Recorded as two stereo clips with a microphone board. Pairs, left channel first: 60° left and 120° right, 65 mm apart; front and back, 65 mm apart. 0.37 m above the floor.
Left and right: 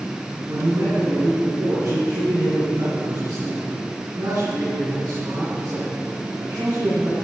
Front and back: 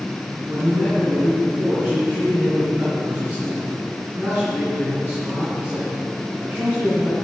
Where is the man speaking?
120° right, 4 m.